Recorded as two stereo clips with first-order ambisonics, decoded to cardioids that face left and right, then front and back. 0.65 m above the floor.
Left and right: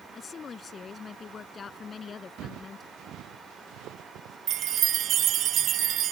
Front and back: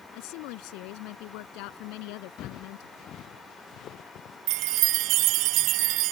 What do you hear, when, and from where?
0.1 s a woman speaking: 20° left
2.4 s footsteps: 50° right
4.5 s a chime: 140° right